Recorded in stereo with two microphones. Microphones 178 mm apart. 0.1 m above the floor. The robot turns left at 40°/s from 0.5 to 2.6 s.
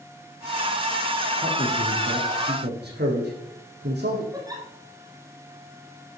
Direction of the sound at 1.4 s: 50° right (ahead or behind).